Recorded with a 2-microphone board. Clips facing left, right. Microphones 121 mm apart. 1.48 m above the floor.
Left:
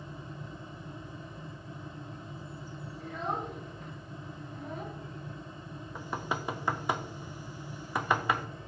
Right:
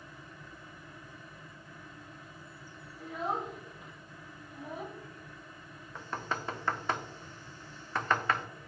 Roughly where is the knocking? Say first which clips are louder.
Left 2 dB; centre.